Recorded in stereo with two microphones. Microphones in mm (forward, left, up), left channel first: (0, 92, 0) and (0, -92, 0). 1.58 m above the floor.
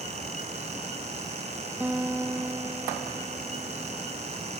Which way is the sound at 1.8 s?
10° right (ahead or behind).